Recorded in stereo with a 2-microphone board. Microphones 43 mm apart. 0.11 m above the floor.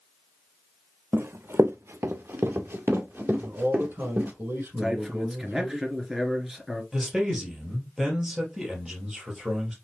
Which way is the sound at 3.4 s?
60° right (ahead or behind).